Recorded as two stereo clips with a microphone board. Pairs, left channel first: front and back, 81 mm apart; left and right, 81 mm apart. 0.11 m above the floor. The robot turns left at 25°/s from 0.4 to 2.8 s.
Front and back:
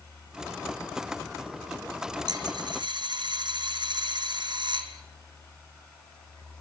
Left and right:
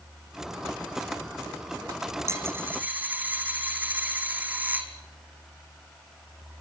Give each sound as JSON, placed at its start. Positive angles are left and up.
{"t": 2.3, "sound": "a dropped coin", "azimuth_deg": -150, "distance_m": 2.0}